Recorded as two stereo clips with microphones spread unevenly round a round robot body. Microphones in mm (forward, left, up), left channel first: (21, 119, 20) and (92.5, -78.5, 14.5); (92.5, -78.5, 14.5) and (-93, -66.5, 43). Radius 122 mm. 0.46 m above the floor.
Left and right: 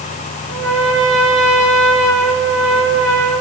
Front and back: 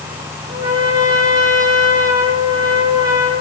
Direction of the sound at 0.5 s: 115° right.